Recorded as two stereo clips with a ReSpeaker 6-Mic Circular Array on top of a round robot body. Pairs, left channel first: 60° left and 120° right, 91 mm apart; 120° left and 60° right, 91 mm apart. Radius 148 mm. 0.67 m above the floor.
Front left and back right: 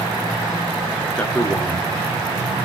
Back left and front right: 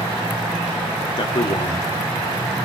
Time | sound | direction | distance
1.2 | a man speaking | 135° left | 2.0 m